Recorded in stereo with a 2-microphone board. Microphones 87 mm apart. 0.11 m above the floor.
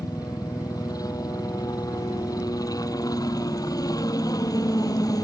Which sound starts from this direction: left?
A helicopter, at 0.0 s.